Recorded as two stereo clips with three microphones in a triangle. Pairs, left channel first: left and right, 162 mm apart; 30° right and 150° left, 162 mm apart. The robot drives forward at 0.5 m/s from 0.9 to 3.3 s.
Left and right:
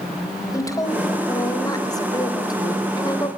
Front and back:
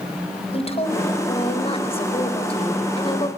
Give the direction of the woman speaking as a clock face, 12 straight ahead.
11 o'clock.